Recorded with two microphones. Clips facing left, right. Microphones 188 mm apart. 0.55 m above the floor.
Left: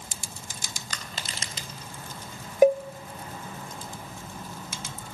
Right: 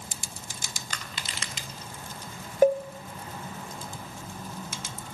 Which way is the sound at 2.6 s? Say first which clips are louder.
Left 2 dB; 15° left (ahead or behind).